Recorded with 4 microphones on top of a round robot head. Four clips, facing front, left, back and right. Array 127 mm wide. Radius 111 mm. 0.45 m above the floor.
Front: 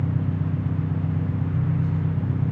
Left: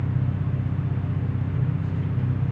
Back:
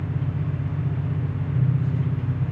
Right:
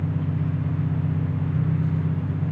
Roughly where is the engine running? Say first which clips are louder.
Right 2 dB, front 2 dB; ahead.